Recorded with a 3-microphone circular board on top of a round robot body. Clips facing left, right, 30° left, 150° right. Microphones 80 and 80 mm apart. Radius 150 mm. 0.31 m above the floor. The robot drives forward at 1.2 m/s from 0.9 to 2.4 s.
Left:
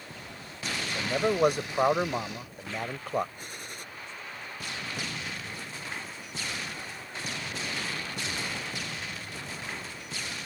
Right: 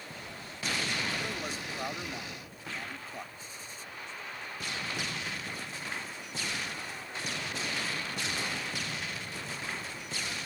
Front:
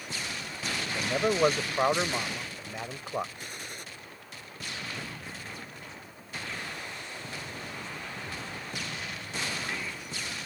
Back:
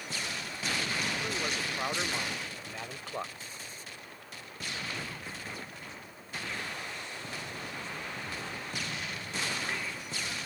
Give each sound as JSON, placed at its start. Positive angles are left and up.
{"t": 0.9, "sound": "a man speaking", "azimuth_deg": 60}
{"t": 3.4, "sound": "a gunshot", "azimuth_deg": 60}